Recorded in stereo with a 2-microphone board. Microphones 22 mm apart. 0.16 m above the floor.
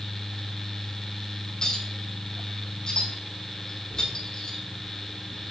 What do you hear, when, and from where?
1.6 s a clink: 35° left (ahead or behind), 4 m